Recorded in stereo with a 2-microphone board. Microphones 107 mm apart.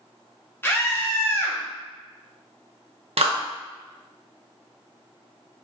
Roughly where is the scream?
Left.